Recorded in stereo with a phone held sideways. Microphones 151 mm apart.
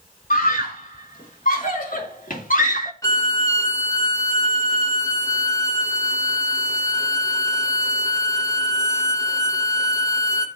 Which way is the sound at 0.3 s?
65° left (ahead or behind).